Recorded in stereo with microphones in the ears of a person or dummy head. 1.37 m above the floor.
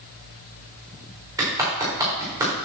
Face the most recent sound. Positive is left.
turn(degrees=-15)  # may be behind; listen again after turning